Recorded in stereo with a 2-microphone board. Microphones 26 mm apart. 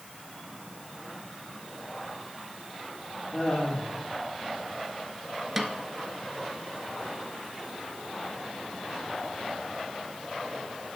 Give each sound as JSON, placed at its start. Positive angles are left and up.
{"t": 3.3, "sound": "laughter", "side_deg": 25, "distance_m": 6.0}
{"t": 5.6, "sound": "a snare drum", "side_deg": -10, "distance_m": 1.1}